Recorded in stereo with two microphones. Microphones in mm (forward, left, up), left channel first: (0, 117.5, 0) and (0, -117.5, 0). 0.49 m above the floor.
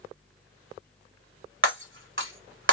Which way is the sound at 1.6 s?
55° right (ahead or behind).